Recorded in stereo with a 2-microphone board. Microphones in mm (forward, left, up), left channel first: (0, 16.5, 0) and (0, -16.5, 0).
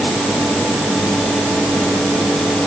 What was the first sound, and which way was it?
Only background noise.